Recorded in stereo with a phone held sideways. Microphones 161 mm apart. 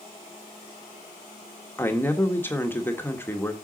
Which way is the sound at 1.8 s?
15° left (ahead or behind).